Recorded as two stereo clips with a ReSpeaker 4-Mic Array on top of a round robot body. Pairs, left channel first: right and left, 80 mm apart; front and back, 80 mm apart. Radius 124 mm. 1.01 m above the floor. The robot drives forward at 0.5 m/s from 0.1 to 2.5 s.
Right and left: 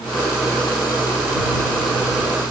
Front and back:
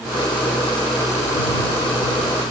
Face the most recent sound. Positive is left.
No sound to turn to.